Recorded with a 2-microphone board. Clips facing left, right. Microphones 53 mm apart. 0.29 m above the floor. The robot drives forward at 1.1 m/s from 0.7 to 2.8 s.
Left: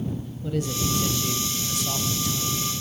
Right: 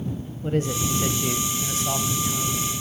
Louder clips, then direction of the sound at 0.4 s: Right 3 dB; 35° right (ahead or behind).